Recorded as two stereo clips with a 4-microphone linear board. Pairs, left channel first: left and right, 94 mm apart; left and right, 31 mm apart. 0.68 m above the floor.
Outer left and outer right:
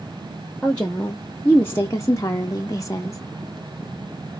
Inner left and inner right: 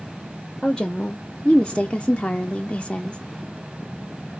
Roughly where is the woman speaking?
Centre.